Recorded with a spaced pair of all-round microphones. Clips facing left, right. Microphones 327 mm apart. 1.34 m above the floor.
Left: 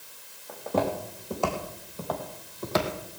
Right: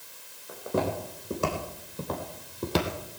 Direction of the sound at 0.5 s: 15° right (ahead or behind).